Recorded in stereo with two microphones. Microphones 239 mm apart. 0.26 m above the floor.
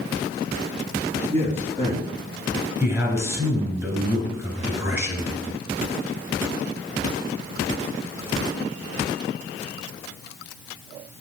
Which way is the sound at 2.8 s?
10° right (ahead or behind).